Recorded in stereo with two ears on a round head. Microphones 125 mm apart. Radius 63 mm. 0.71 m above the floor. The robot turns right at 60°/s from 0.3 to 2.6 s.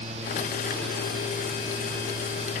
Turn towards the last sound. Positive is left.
No sound to turn to.